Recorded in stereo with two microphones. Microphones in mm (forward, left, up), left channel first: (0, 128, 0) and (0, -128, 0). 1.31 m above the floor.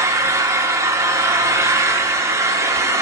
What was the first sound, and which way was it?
An engine running, 10° right (ahead or behind).